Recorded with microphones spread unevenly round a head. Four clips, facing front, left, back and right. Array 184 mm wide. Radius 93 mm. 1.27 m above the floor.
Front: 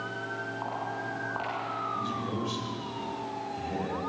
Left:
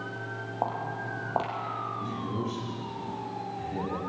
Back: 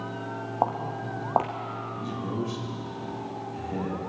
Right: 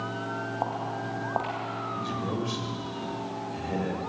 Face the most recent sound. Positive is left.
turn(degrees=-70)